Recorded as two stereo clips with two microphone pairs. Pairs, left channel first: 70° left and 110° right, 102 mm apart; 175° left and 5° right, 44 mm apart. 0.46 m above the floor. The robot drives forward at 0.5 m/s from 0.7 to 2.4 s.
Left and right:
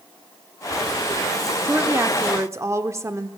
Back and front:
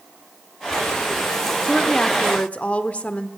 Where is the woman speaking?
110° right, 0.8 m; by 3.3 s 150° right, 0.9 m.